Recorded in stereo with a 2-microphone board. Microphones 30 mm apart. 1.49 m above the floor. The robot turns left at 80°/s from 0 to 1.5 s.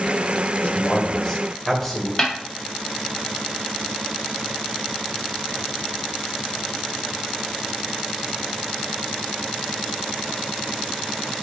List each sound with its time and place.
0.6 s a man speaking: 75° left, 1.3 m; by 2.1 s straight ahead, 1.3 m
2.2 s a snare drum: 20° left (ahead or behind), 1.4 m